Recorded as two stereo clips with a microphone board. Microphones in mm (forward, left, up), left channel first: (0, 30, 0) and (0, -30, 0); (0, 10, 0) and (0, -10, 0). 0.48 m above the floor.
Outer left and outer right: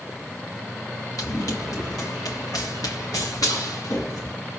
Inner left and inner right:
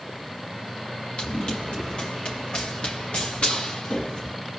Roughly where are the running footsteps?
Left.